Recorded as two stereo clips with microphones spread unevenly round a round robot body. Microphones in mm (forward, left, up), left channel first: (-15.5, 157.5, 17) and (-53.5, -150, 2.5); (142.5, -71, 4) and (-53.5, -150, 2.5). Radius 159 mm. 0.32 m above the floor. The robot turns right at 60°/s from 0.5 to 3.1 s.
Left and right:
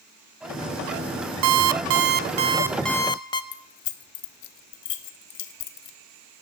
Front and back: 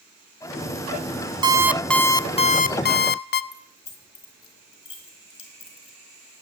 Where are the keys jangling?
90° left, 1.2 m.